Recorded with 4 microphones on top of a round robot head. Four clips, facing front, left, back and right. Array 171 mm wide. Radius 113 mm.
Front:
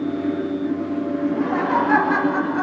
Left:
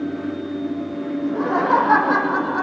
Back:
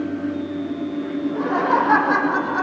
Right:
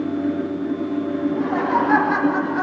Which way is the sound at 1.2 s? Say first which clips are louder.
Left 4 dB, back 2 dB; 120° left.